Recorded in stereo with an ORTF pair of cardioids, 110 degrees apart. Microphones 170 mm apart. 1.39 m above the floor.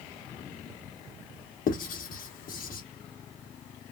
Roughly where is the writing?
Ahead left.